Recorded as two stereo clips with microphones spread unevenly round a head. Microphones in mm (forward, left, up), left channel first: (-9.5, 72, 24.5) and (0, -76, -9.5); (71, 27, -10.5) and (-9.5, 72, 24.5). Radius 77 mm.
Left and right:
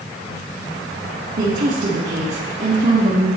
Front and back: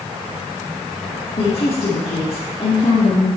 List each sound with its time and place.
1.4 s a woman speaking: 50° right, 1.9 m